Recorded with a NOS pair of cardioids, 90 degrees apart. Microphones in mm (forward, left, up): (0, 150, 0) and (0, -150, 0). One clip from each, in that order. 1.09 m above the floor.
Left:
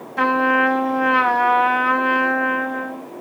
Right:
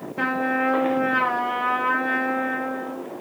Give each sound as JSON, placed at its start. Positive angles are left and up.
{"t": 0.2, "sound": "a trumpet", "azimuth_deg": 60, "distance_m": 0.8}